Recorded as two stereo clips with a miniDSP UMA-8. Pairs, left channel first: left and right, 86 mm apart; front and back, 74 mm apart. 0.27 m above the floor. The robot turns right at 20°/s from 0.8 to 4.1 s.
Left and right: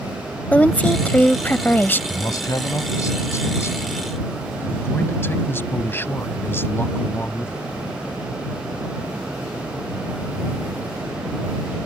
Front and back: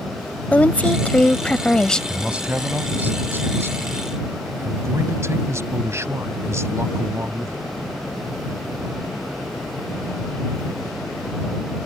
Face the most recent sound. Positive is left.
turn(degrees=145)